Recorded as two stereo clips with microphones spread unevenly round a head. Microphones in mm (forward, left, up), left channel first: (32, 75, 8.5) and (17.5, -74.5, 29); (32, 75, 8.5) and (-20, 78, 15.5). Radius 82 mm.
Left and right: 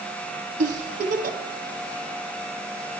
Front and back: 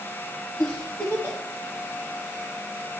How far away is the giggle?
About 0.8 m.